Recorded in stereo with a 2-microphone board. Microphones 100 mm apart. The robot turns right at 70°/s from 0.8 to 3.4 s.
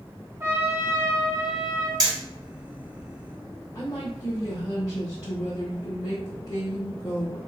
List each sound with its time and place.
0.4 s a trumpet: 135° right, 0.8 m; by 1.9 s 60° right, 0.8 m
2.0 s hammering: 40° right (ahead or behind), 2.5 m; by 2.1 s 50° right (ahead or behind), 2.5 m
3.8 s a woman speaking: 30° left (ahead or behind), 1.3 m